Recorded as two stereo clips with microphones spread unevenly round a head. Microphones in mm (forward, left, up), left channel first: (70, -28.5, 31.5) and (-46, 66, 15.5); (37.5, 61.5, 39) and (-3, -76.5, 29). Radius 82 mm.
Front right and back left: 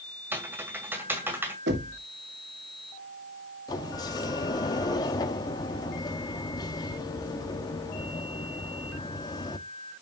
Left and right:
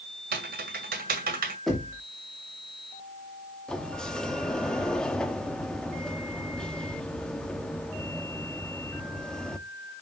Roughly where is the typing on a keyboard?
Behind right.